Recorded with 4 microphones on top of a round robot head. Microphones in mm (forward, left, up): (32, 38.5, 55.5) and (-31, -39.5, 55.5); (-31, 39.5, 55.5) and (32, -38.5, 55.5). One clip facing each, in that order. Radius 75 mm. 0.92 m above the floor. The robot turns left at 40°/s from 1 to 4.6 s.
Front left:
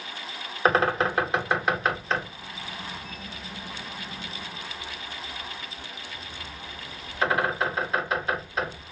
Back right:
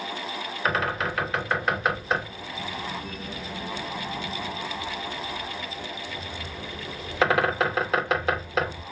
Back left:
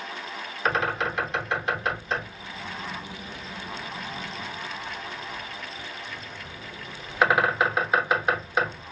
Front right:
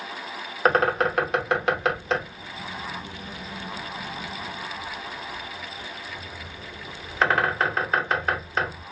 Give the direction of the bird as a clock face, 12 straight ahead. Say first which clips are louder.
Front left 5 dB, front right 5 dB; 12 o'clock.